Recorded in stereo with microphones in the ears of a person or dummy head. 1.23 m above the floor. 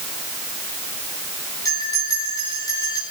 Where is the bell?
25° left (ahead or behind), 4.5 m.